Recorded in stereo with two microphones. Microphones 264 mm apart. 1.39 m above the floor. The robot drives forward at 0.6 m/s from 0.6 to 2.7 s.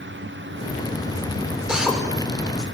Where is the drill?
5° right (ahead or behind), 6 m.